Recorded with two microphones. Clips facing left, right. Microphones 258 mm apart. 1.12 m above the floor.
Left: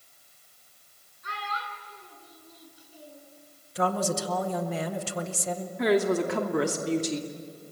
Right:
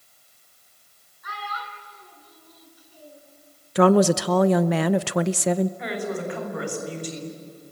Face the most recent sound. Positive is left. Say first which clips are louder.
# left 6 dB
turn(degrees=70)  # may be behind; listen again after turning